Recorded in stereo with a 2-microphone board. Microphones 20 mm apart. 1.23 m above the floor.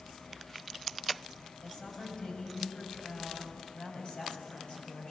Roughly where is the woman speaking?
Left.